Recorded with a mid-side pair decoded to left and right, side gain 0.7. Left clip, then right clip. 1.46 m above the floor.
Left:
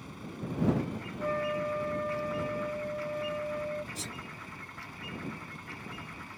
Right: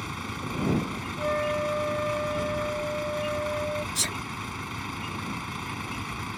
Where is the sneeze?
50° right.